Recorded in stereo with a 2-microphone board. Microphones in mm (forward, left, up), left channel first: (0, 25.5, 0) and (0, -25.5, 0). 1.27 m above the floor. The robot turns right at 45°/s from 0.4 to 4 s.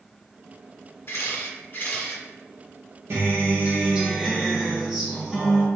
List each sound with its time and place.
1.1 s a camera shutter: 100° left, 1.7 m; by 2.2 s 150° left, 1.7 m
3.1 s a guitar: 55° right, 1.2 m; by 5.7 s 15° right, 1.2 m